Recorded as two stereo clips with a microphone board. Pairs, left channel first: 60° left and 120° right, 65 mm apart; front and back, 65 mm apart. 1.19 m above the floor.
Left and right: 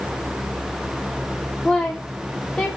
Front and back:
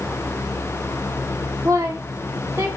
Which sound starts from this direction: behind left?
A woman speaking, at 1.6 s.